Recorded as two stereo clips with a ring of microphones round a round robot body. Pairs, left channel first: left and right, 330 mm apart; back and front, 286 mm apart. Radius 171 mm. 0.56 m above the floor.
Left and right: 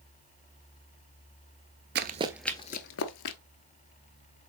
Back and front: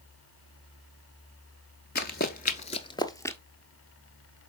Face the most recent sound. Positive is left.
turn(degrees=100)